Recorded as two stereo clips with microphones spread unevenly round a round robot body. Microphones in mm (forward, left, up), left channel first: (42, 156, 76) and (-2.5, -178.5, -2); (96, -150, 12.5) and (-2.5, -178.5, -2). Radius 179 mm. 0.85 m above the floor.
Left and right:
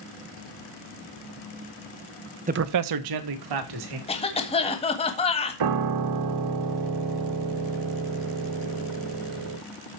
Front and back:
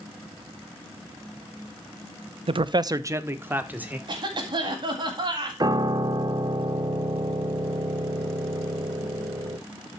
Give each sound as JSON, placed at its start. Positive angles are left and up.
{"t": 2.5, "sound": "a man speaking", "azimuth_deg": -155, "distance_m": 0.6}
{"t": 4.1, "sound": "a cough", "azimuth_deg": 160, "distance_m": 1.6}
{"t": 5.6, "sound": "a piano", "azimuth_deg": -115, "distance_m": 1.1}